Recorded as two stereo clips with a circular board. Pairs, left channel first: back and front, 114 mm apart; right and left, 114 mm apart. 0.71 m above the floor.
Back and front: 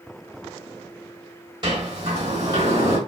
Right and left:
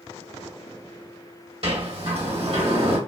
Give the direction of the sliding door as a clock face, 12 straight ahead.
10 o'clock.